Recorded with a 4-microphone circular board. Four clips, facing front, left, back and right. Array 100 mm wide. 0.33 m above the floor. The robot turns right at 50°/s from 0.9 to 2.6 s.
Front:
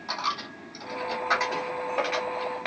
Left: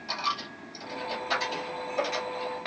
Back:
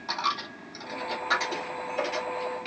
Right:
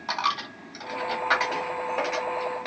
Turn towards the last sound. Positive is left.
turn(degrees=-5)